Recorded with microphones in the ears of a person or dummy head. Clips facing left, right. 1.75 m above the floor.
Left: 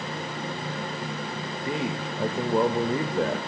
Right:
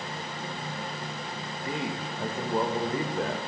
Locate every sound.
1.6 s a man speaking: 60° left (ahead or behind), 0.6 m